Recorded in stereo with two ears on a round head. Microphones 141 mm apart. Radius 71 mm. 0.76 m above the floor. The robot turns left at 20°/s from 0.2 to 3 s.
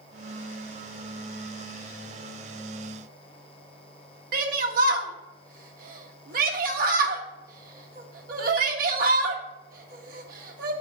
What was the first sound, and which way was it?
A shout, 60° right (ahead or behind).